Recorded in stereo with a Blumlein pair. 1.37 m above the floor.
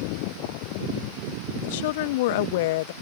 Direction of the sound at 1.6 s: 50° left.